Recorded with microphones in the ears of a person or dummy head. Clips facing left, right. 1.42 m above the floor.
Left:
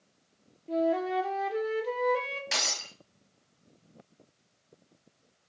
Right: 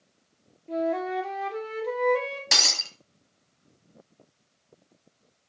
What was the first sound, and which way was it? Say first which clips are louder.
A flute: even; 5° left (ahead or behind).